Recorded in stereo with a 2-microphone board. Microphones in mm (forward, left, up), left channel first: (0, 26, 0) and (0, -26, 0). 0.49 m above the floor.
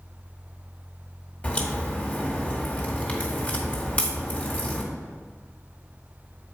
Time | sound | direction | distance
1.4 | a crack | 25° left (ahead or behind) | 1.8 m